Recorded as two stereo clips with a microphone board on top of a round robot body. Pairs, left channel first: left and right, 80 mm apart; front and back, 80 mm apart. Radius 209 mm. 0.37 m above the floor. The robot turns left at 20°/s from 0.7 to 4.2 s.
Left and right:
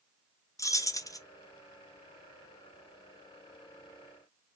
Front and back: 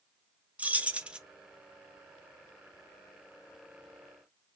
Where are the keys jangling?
115° left, 0.7 m; by 1.2 s 105° left, 0.7 m.